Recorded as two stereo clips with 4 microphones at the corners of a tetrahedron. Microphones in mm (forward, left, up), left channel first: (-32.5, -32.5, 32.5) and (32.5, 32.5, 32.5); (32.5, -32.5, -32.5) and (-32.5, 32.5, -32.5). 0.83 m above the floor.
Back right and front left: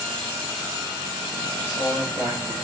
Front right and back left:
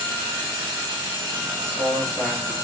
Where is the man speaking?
20° left, 1.6 m.